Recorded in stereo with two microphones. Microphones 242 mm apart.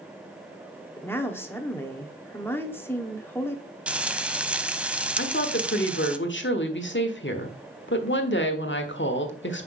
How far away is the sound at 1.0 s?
About 0.9 m.